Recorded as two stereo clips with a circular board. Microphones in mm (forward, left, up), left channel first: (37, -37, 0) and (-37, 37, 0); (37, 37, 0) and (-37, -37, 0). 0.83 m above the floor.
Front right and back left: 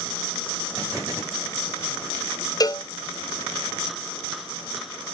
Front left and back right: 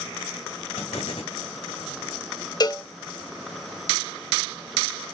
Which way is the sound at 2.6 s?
Straight ahead.